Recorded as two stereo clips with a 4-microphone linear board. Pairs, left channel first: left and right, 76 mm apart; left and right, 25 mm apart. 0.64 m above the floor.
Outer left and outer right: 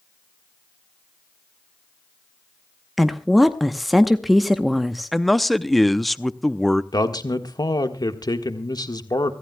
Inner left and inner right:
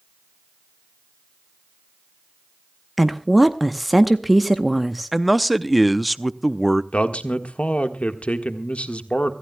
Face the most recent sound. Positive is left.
turn(degrees=60)  # may be behind; listen again after turning